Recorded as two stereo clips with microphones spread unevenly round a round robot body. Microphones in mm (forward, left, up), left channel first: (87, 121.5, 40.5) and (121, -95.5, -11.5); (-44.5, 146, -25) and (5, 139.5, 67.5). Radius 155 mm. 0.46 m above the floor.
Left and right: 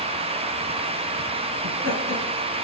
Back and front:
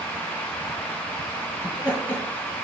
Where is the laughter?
125° right, 4 m.